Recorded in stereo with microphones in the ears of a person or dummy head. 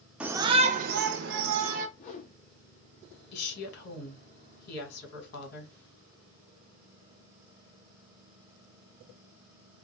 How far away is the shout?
About 0.5 m.